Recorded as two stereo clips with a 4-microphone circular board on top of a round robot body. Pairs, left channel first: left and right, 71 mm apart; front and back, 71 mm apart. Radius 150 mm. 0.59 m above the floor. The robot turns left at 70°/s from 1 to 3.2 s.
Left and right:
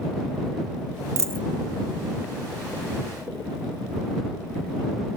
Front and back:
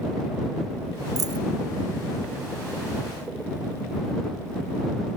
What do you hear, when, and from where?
1.2 s a dropped coin: 135° right; by 1.4 s 155° right